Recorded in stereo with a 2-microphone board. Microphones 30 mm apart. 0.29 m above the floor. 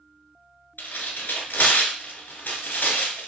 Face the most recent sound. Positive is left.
turn(degrees=85)